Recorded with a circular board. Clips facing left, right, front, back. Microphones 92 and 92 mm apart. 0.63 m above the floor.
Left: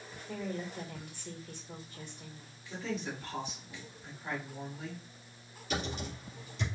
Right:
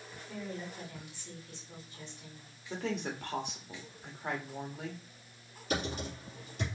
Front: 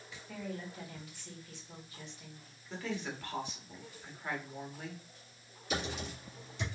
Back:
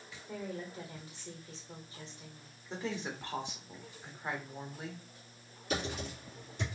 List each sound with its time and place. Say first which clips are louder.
0.3 s a woman speaking: left 3 dB, back 1 dB; 125° left, 1.8 m
2.7 s a woman speaking: right 2 dB, back 1 dB; 115° right, 1.5 m
5.7 s typing on a keyboard: right 2 dB, back 1 dB; 135° right, 3.5 m